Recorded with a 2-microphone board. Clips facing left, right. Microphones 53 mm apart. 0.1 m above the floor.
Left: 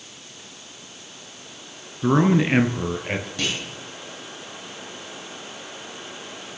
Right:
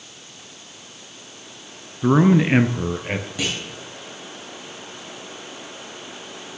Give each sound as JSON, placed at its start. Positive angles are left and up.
{"t": 2.0, "sound": "a man speaking", "side_deg": -10, "distance_m": 1.1}
{"t": 3.4, "sound": "a clunk", "side_deg": -10, "distance_m": 6.0}